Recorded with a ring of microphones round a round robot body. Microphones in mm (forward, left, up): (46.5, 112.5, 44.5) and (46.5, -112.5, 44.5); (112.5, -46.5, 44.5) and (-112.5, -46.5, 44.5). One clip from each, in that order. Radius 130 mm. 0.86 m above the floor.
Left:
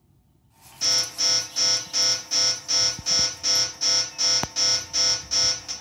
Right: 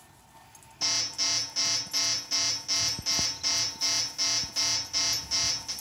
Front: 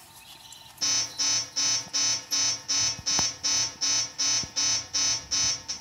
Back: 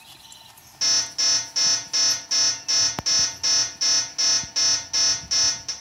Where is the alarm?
175° right, 1.6 m.